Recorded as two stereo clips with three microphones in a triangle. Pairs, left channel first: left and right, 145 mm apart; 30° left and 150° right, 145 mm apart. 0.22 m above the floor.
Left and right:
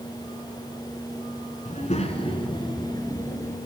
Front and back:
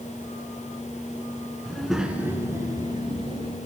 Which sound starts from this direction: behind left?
A child speaking, at 1.6 s.